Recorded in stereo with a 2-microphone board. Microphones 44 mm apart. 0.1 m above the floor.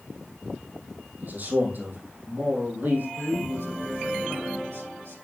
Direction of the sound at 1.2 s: 45° right (ahead or behind).